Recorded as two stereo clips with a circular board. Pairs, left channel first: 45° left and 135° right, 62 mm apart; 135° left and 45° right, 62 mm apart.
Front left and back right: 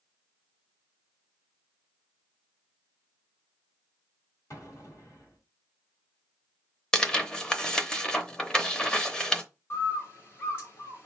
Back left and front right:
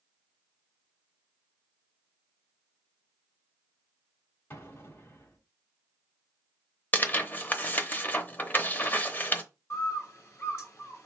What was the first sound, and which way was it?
An explosion, 85° left.